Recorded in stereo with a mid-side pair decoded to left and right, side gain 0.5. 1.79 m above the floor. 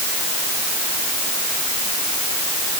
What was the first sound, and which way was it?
Only background noise.